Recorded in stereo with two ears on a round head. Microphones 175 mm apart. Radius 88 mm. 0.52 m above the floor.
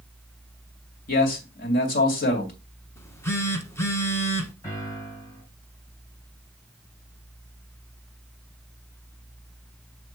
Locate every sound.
1.1 s a man speaking: 50° left (ahead or behind), 2.5 m
3.0 s a phone buzzing: 15° left (ahead or behind), 1.0 m
4.6 s a piano: 15° left (ahead or behind), 5.5 m